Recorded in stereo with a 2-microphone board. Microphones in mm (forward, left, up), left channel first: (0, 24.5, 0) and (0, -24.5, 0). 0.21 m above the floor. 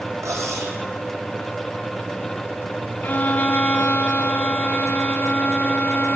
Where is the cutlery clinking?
85° right, 5 m.